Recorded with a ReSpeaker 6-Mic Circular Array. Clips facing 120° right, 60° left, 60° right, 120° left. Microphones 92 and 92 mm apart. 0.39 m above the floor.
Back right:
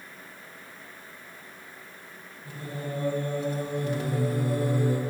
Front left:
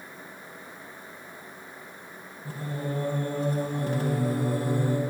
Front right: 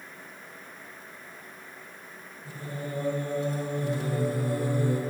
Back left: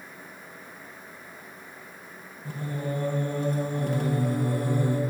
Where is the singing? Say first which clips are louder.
Front left 3 dB, back left 5 dB; 105° left, 2.5 m.